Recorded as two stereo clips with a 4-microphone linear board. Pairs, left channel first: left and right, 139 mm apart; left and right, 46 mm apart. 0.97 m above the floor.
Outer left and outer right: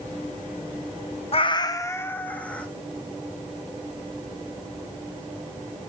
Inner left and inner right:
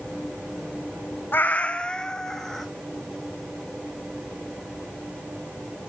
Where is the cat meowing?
45° left (ahead or behind), 0.6 m; by 2.7 s 10° left (ahead or behind), 1.8 m.